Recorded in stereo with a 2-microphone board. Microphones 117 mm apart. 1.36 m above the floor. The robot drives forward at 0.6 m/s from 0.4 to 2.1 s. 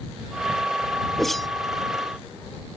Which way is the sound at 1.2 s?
Centre (ahead or behind).